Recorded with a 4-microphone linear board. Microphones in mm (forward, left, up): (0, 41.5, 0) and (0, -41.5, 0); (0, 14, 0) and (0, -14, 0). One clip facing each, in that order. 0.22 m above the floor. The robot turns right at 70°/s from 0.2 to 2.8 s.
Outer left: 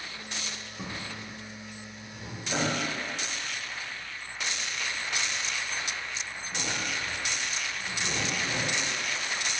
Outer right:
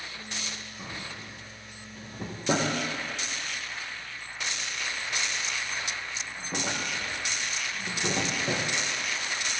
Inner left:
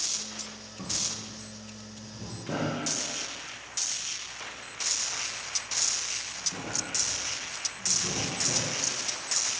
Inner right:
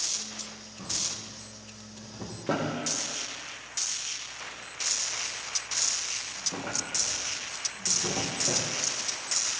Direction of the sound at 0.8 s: 25° left (ahead or behind).